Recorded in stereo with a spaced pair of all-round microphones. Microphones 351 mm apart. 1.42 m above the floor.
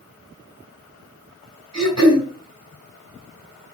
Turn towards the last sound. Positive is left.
turn(degrees=-50)  # may be behind; listen again after turning